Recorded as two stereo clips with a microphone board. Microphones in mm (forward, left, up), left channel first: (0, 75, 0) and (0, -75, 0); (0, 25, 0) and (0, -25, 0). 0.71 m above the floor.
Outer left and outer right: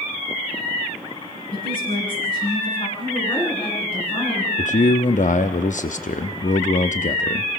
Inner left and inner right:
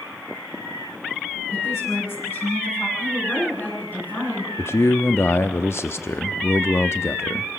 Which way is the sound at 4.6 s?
55° left (ahead or behind).